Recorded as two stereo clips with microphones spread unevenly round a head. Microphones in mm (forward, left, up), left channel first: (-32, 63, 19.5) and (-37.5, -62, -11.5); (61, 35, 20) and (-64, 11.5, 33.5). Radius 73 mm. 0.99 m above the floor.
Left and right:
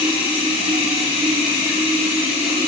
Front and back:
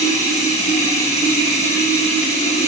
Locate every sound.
0.0 s running water: 35° right, 5 m